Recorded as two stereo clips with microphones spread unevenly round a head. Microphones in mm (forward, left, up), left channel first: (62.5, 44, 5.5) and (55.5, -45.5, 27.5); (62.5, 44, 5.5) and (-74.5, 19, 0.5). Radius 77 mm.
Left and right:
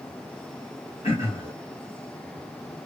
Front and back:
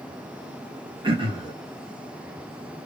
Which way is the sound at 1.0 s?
140° left.